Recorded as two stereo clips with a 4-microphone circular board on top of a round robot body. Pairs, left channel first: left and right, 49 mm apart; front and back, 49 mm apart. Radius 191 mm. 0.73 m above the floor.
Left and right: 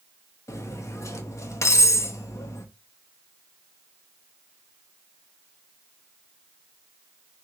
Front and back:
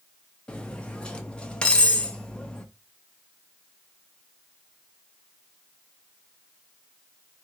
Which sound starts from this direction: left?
Cutlery clinking, at 0.5 s.